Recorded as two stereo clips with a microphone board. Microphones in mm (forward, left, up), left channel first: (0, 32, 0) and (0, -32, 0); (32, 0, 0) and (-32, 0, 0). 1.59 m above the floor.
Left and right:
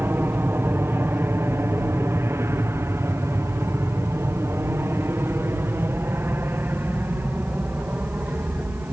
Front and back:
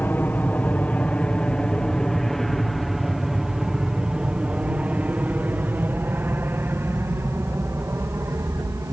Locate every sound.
0.0 s an aircraft: 50° right; by 8.9 s 145° right